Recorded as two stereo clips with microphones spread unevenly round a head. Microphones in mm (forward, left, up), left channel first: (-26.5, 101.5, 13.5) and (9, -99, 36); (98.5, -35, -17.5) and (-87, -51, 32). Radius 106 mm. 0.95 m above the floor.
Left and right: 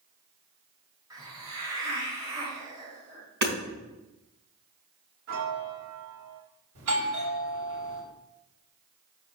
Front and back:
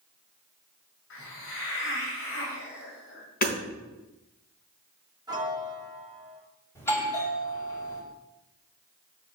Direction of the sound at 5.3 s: 105° right.